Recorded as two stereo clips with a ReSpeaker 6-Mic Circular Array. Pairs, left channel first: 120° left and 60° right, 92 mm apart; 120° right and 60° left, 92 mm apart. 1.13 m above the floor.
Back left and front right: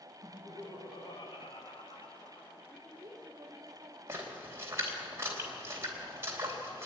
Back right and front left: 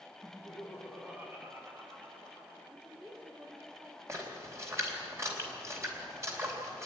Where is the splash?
Straight ahead, 3.5 m.